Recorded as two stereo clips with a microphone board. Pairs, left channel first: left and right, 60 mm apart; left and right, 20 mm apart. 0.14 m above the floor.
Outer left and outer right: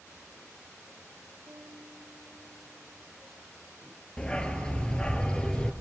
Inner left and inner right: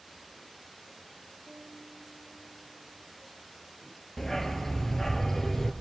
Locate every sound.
1.5 s a piano: 35° right (ahead or behind), 6.5 m
4.2 s a dog barking: 15° left (ahead or behind), 0.9 m